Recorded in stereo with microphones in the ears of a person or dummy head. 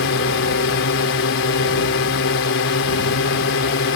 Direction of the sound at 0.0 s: 65° left (ahead or behind).